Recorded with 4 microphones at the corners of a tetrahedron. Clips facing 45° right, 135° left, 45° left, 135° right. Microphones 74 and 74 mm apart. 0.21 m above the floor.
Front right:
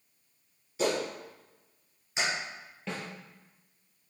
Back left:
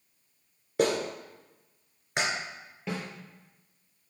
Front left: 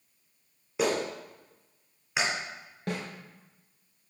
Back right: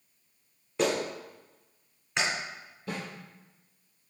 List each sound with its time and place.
0.8 s a clap: 125° left, 2 m
2.9 s a snare drum: 50° left, 3.5 m